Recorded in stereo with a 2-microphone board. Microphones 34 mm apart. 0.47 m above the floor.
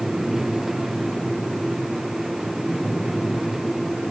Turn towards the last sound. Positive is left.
No sound to turn to.